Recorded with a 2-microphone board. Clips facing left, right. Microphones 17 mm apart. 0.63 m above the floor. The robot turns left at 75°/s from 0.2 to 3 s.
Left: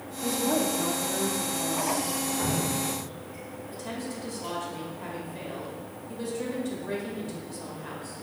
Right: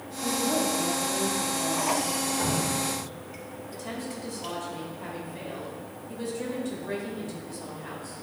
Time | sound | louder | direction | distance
0.2 | a woman speaking | even | 95° left | 1.0 m
2.4 | dripping | right 1 dB | 10° right (ahead or behind) | 2.5 m
3.7 | a woman speaking | even | 5° left (ahead or behind) | 2.0 m